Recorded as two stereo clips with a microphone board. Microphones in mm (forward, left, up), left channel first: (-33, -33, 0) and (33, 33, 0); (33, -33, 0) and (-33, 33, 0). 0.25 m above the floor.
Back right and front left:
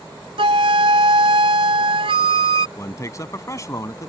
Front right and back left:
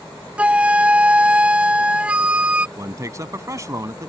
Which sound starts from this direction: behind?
A man speaking, at 2.8 s.